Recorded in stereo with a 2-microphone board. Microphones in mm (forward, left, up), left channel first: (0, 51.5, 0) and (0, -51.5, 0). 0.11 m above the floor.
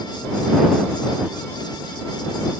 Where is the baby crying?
I don't hear a baby crying.